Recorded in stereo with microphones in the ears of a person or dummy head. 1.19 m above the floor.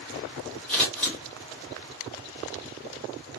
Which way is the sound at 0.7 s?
10° left (ahead or behind).